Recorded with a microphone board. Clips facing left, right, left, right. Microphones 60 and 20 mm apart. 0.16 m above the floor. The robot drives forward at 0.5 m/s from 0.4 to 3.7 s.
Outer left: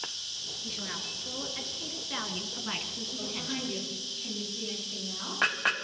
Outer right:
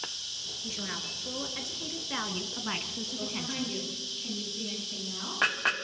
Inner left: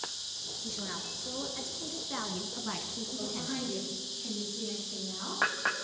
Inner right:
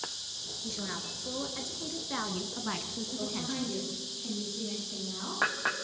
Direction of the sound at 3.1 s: Centre (ahead or behind).